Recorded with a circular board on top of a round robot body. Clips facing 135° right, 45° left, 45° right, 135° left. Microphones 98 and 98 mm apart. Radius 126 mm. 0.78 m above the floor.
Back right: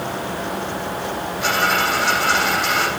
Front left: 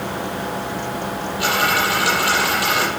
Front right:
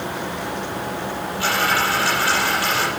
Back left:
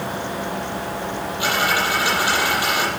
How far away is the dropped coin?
About 7.5 m.